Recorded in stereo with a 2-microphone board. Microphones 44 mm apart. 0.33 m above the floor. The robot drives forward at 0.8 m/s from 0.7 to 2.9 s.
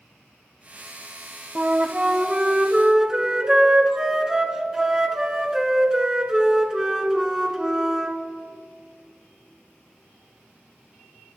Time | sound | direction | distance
1.6 | a flute | 35° right (ahead or behind) | 0.7 m